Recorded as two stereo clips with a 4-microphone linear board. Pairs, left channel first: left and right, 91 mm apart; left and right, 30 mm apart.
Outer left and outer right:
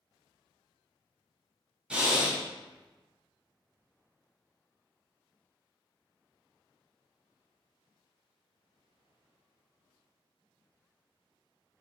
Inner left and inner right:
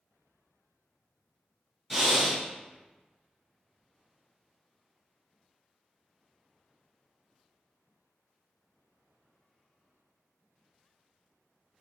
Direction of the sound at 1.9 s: 10° right (ahead or behind).